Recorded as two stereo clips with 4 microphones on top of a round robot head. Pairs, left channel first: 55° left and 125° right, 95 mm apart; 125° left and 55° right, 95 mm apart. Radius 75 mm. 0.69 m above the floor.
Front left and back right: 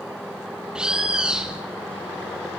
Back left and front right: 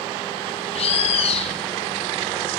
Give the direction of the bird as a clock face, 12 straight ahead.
7 o'clock.